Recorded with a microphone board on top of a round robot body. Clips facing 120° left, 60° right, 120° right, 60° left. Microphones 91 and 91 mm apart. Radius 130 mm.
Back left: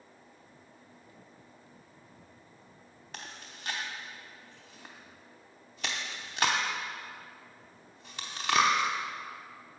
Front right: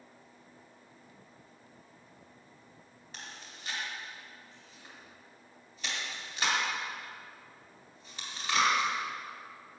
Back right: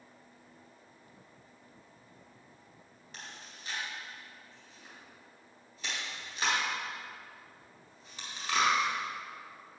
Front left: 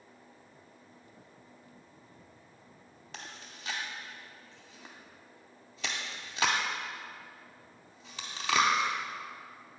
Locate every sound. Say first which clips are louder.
3.1 s chewing: back left 2 dB, front left 2 dB; 85° left, 0.6 m